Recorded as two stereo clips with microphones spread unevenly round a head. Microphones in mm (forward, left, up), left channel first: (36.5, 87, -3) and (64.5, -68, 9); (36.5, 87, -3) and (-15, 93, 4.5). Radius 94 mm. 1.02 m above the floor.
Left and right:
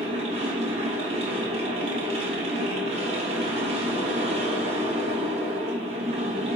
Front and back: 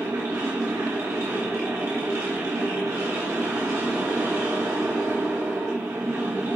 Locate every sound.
0.0 s a machine running: 140° right, 1.3 m